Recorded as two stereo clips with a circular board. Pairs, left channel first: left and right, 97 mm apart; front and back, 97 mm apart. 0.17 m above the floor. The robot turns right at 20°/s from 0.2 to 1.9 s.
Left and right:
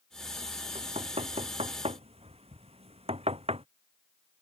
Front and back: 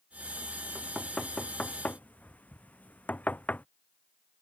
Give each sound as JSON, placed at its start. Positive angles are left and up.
{"t": 0.8, "sound": "knocking", "azimuth_deg": -95}